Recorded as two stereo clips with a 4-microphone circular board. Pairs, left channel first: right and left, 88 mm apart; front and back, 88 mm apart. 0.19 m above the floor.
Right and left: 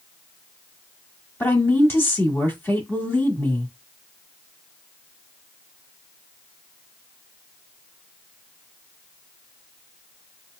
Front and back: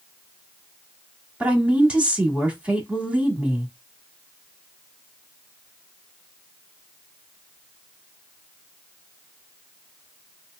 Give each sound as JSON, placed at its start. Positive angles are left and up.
{"t": 1.4, "sound": "a woman speaking", "azimuth_deg": -115, "distance_m": 1.3}